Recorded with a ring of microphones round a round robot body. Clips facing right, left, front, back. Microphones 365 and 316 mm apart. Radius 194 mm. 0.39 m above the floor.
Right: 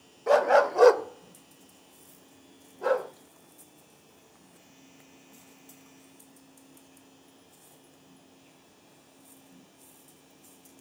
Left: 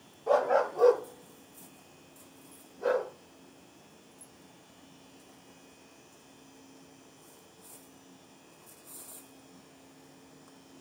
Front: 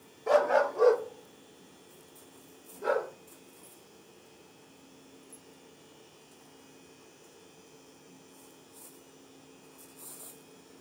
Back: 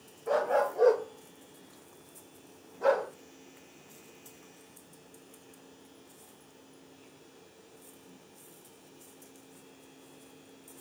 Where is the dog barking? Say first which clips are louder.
Right 4 dB, front 3 dB; 45° right, 0.6 m; by 3.1 s 160° right, 1.4 m.